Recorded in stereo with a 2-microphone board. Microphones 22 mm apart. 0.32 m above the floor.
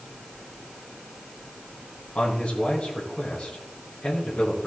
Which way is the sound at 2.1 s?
55° left (ahead or behind).